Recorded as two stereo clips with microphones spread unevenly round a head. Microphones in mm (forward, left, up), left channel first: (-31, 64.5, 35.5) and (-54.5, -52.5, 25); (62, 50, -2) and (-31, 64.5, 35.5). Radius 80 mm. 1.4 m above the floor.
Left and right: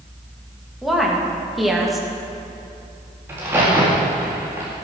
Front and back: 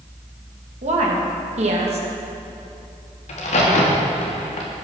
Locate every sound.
0.8 s a woman speaking: 170° left, 2 m
3.3 s a crack: 25° right, 1.9 m